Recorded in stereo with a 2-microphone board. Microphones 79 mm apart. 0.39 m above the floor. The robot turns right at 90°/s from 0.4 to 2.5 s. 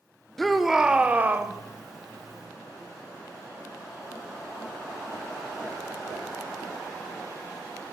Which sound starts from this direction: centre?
A shout, at 0.4 s.